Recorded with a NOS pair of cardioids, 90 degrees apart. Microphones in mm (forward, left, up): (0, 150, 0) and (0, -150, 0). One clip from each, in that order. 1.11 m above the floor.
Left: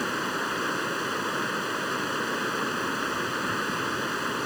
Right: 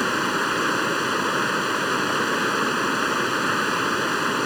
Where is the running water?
50° right.